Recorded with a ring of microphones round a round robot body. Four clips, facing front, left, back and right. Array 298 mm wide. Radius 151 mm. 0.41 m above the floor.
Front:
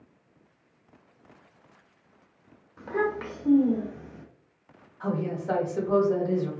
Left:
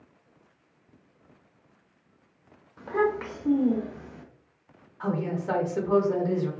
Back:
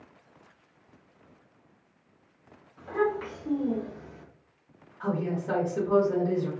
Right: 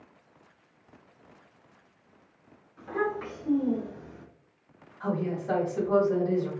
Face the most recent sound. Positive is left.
turn(degrees=100)